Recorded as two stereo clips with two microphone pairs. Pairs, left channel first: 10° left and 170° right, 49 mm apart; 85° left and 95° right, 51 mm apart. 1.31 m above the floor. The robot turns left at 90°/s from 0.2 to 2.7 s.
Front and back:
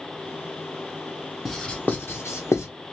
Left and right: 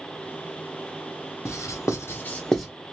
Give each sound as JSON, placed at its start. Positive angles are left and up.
{"t": 1.4, "sound": "writing", "azimuth_deg": 100, "distance_m": 0.8}